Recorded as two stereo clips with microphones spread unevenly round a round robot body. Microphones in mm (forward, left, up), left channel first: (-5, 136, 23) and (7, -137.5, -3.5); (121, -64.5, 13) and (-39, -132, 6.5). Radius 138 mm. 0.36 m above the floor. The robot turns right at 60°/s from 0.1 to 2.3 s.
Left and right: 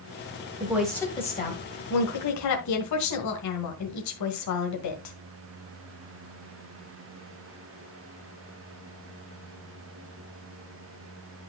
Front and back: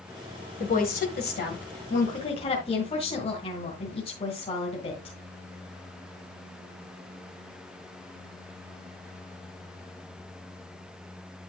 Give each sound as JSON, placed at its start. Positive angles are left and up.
{"t": 0.6, "sound": "a woman speaking", "azimuth_deg": -15, "distance_m": 1.8}